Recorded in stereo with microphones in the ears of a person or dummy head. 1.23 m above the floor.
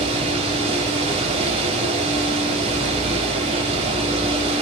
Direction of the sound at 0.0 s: 35° right (ahead or behind).